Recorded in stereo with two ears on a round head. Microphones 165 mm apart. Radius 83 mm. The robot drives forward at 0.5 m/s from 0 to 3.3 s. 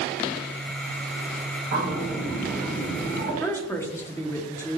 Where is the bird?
50° right (ahead or behind), 1.9 m; by 3.3 s 35° right (ahead or behind), 2.5 m.